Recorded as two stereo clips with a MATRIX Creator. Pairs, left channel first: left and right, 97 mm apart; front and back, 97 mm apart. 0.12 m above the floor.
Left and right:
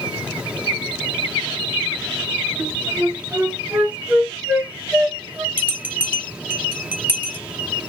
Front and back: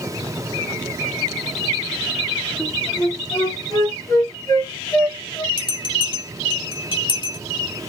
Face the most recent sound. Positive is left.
turn(degrees=-20)